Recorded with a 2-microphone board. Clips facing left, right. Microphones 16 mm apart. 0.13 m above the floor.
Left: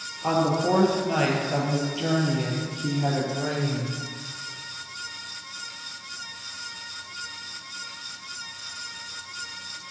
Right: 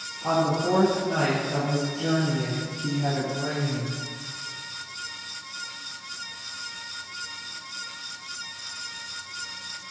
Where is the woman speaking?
40° left (ahead or behind), 3 m; by 4.0 s 65° left (ahead or behind), 4.5 m.